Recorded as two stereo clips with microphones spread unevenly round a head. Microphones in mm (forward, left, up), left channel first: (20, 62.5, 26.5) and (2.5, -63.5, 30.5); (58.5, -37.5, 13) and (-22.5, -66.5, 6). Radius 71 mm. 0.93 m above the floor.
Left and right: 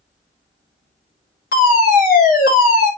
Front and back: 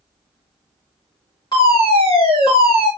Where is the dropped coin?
I don't hear a dropped coin.